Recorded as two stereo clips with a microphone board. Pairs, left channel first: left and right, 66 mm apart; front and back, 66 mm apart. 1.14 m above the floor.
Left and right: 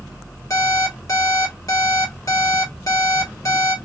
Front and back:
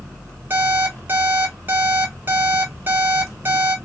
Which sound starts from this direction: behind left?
An alarm clock, at 0.5 s.